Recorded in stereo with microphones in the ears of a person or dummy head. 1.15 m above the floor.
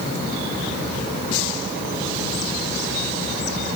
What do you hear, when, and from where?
Only background noise.